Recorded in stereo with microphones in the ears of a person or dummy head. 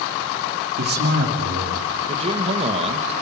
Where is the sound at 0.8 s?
50° right (ahead or behind), 2.5 m; by 1.9 s 60° right (ahead or behind), 3 m.